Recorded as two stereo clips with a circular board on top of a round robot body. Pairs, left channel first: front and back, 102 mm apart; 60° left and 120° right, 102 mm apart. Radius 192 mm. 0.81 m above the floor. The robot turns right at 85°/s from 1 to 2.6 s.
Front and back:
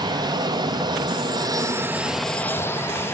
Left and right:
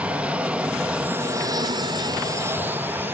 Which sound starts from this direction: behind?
An aircraft, at 0.0 s.